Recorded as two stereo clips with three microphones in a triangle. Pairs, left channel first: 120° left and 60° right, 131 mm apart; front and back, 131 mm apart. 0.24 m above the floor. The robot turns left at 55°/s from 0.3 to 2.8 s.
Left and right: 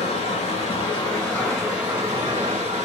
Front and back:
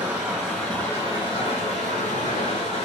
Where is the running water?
100° left, 2 m; by 2.9 s 35° right, 2 m.